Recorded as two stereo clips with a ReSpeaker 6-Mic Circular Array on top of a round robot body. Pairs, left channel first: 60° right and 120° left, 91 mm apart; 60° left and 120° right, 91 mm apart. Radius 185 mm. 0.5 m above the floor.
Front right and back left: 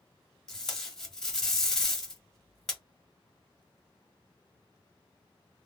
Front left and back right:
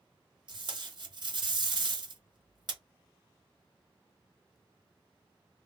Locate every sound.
0.5 s tape being pulled: 145° right, 1.2 m